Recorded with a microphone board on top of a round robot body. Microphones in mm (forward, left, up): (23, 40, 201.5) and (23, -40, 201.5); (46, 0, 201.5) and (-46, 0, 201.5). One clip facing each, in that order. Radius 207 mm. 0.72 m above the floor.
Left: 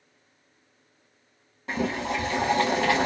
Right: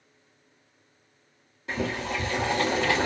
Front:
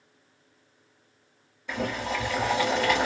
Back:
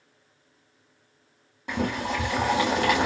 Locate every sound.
1.7 s boiling: 145° left, 1.1 m